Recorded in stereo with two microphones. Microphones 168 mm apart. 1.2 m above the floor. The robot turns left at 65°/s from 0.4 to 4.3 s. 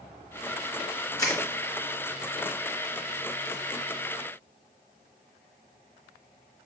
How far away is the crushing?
About 0.9 m.